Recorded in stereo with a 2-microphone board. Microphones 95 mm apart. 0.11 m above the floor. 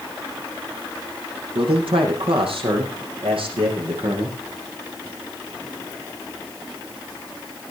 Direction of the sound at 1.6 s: 70° right (ahead or behind).